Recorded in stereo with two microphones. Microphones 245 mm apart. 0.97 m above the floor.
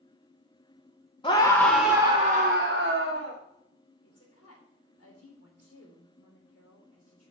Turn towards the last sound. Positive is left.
turn(degrees=75)  # may be behind; listen again after turning